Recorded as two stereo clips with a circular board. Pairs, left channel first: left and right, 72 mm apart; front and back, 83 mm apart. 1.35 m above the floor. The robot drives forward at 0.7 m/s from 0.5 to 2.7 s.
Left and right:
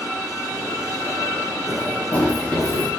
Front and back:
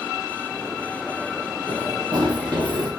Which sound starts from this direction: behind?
Running footsteps, at 1.7 s.